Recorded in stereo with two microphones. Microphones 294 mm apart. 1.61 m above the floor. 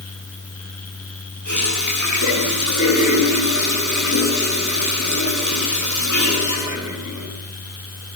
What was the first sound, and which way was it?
A running tap, 80° left.